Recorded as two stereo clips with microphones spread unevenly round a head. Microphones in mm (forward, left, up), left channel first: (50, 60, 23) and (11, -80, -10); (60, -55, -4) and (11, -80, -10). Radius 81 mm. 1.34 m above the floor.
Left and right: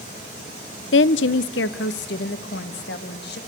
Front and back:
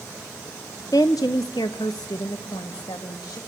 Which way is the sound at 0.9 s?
95° left.